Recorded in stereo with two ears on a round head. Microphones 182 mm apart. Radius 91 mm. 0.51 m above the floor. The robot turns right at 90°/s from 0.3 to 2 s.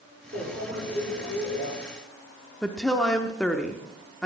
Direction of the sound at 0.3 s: 40° right.